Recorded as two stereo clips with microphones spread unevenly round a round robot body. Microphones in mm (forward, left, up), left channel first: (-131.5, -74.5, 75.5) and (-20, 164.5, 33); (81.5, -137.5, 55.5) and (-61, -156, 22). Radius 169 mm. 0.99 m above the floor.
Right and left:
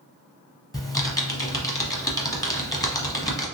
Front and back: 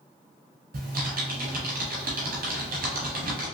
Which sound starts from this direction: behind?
Typing on a keyboard, at 0.7 s.